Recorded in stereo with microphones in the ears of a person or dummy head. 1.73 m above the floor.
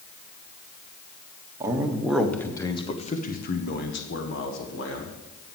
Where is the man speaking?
15° right (ahead or behind), 1.3 m; by 5.1 s 85° left, 2 m.